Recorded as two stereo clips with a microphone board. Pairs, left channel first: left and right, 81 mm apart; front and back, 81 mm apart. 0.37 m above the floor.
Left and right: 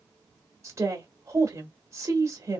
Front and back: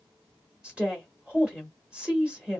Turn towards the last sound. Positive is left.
turn(degrees=-110)